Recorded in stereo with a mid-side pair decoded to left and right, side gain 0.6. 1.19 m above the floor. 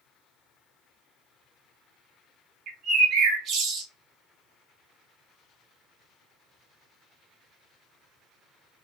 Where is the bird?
50° right, 1.0 m.